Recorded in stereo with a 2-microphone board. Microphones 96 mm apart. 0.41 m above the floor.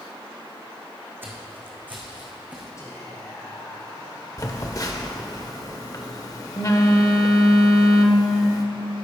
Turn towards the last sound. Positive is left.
turn(degrees=40)  # may be behind; listen again after turning